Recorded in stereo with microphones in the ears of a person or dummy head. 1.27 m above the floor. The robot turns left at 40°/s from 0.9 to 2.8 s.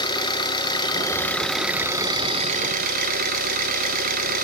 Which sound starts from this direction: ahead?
An engine running, at 0.0 s.